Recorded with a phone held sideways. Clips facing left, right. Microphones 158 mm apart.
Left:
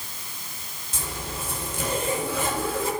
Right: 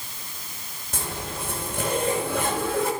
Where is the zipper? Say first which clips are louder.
Right 2 dB; 65° right (ahead or behind), 5.5 m.